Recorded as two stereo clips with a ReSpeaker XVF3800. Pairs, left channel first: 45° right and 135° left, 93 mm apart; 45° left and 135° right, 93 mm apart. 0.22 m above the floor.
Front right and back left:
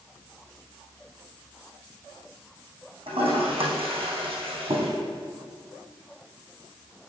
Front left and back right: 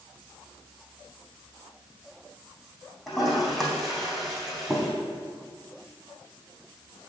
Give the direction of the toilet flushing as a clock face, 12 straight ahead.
8 o'clock.